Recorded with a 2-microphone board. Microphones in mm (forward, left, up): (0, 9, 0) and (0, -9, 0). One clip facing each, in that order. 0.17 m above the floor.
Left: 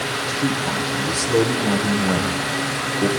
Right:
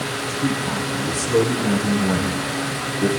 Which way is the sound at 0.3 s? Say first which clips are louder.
Even; 35° left (ahead or behind).